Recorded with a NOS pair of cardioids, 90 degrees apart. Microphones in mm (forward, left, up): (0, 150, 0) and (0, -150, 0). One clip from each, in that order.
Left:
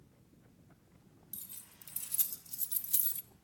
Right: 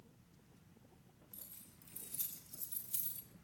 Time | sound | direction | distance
1.3 | keys jangling | 70° left | 3.5 m